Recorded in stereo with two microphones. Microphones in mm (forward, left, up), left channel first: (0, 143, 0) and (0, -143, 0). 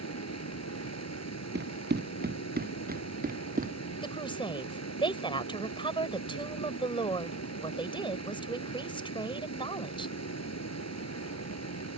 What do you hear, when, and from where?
0.0 s running water: 70° left (ahead or behind)
1.6 s running footsteps: 35° right (ahead or behind); by 3.9 s 30° right (ahead or behind)
4.0 s a woman speaking: 20° left (ahead or behind)